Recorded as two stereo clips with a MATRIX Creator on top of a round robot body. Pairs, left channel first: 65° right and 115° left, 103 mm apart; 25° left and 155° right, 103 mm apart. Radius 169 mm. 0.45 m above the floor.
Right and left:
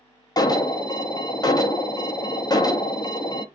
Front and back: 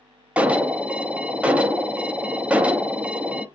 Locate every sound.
0.4 s an alarm: 85° right, 0.8 m